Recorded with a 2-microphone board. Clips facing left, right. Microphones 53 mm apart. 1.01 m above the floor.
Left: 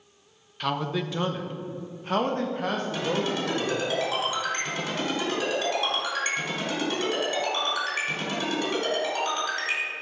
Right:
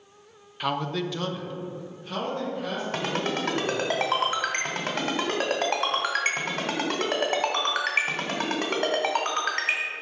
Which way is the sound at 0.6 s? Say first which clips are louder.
Even; 10° right (ahead or behind).